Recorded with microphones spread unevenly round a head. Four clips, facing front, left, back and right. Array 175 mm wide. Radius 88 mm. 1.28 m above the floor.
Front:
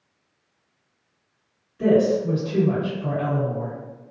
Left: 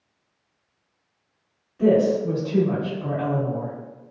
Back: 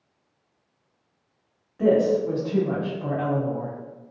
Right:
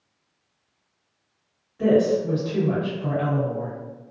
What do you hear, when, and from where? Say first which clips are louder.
1.8 s a woman speaking: left 1 dB, front 1 dB; 170° left, 1.4 m